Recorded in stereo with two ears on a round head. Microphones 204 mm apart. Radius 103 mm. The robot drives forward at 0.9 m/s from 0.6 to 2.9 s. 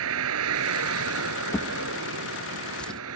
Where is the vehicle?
75° right (ahead or behind).